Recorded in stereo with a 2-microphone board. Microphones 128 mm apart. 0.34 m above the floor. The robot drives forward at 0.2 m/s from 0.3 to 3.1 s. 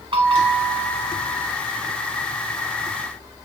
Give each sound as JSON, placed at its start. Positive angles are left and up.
{"t": 0.1, "sound": "a bell", "side_deg": -45, "distance_m": 0.8}